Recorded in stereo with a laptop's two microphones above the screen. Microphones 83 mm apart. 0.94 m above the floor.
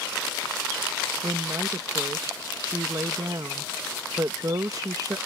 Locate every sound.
1.2 s a woman speaking: 45° right (ahead or behind)